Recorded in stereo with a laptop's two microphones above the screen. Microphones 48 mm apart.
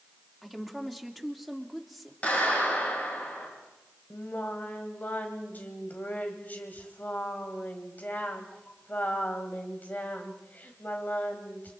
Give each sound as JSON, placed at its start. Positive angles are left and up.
{"t": 0.4, "sound": "a woman speaking", "side_deg": 0, "distance_m": 3.0}
{"t": 2.2, "sound": "a clap", "side_deg": 30, "distance_m": 6.5}
{"t": 4.1, "sound": "singing", "side_deg": 40, "distance_m": 2.0}